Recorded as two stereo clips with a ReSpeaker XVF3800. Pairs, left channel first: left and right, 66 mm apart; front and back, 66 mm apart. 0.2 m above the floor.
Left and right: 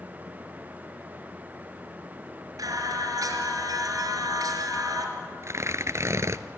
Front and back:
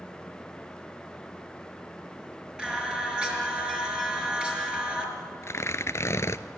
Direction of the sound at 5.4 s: 45° right.